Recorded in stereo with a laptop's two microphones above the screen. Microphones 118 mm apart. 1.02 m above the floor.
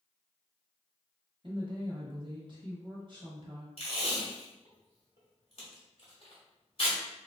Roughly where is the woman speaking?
Right.